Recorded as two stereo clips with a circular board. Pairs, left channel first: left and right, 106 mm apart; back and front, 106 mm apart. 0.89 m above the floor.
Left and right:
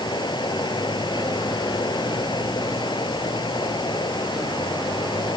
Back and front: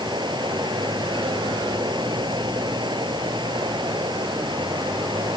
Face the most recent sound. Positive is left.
turn(degrees=45)